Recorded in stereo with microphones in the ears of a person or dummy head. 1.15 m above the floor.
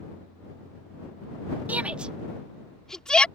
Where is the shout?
20° right (ahead or behind); by 3.3 s centre (ahead or behind).